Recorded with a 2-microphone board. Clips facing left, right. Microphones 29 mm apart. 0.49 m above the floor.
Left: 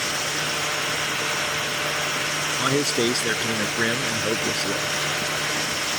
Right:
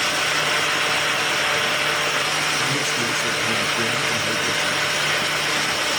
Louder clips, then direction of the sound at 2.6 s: Even; 60° left (ahead or behind).